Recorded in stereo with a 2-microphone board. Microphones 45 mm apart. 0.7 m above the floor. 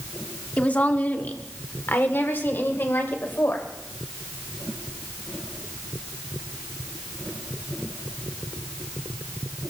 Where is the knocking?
No knocking in this recording.